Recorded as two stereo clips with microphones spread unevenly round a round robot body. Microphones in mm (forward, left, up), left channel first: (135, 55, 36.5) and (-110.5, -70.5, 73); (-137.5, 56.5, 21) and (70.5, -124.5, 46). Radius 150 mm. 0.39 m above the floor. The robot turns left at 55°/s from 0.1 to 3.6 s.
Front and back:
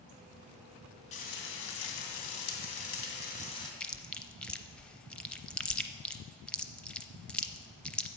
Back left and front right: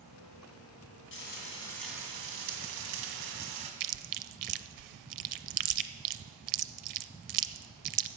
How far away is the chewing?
About 0.6 m.